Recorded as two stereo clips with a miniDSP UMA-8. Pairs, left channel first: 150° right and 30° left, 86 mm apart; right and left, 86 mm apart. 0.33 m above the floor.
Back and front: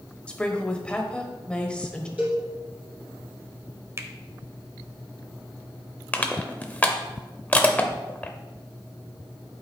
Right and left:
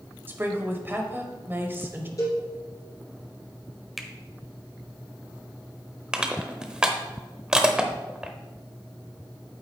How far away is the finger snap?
About 0.8 m.